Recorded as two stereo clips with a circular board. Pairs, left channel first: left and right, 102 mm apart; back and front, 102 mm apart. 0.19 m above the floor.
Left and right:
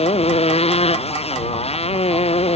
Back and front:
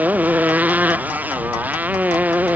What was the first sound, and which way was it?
A motorcycle, 75° left.